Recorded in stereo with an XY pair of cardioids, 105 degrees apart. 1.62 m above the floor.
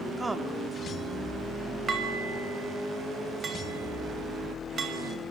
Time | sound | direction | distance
0.2 | a woman speaking | 15° right | 3.5 m
1.9 | dishes clattering | 40° right | 6 m